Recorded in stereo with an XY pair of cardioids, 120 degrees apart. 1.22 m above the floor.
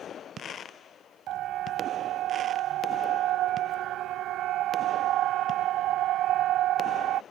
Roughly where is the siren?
Right.